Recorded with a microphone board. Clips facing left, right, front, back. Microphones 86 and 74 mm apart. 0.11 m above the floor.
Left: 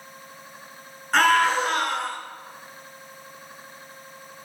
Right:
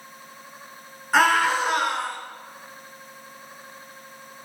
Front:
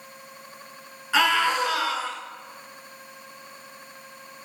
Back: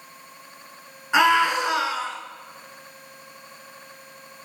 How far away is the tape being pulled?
I don't hear tape being pulled.